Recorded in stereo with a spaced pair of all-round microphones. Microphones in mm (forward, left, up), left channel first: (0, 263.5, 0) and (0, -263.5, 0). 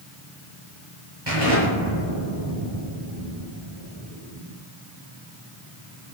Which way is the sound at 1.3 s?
50° right (ahead or behind).